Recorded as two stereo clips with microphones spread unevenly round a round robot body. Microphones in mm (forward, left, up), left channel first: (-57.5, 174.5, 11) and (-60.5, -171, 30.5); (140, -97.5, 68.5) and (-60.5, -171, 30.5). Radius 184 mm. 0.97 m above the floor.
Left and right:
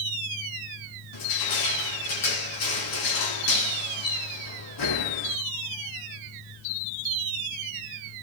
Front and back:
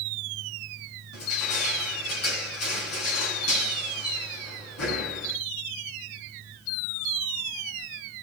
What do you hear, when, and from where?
1.1 s crushing: 50° left, 3.5 m